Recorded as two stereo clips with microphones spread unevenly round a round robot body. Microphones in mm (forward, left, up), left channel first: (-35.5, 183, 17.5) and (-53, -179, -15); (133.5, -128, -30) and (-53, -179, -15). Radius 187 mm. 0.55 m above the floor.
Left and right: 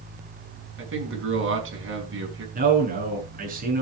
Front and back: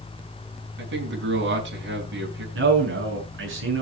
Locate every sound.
0.8 s a man speaking: 150° right, 6 m
2.5 s a man speaking: 160° right, 6.5 m